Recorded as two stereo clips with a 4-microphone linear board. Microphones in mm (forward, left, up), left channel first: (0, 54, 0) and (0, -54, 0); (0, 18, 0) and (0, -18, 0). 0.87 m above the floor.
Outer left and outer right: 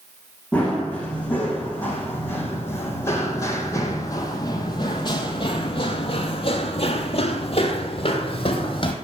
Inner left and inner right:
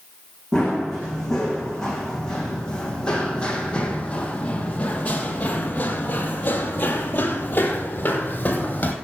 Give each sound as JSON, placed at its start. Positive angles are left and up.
{"t": 0.5, "sound": "running footsteps", "side_deg": 10, "distance_m": 3.5}